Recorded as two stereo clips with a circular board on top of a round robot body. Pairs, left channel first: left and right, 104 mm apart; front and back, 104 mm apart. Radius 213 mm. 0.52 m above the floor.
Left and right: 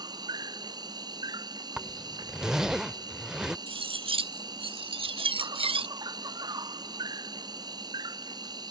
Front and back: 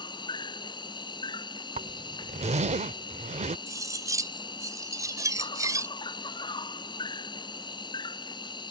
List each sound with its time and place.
0.0 s an insect: 40° right
1.8 s a zipper: 175° right
3.7 s cutlery clinking: 120° right